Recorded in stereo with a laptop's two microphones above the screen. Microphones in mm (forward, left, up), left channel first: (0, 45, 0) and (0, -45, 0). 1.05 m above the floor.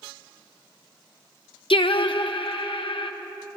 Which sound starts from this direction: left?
Singing, at 1.7 s.